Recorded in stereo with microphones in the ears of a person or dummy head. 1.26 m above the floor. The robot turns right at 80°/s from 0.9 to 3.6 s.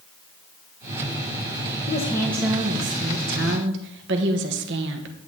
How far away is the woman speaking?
About 1.1 m.